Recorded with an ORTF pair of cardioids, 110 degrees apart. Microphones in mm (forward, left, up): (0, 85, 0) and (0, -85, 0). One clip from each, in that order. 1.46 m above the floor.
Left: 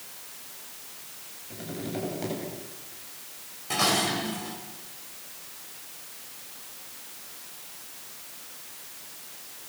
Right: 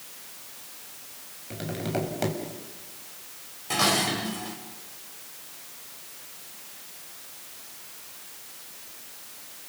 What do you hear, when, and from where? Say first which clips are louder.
1.5 s tapping: right 4 dB; 50° right, 7 m
3.7 s dishes clattering: right 1 dB; 10° right, 5 m